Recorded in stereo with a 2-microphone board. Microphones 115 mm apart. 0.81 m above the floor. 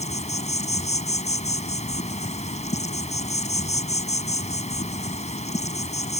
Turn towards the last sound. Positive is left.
turn(degrees=80)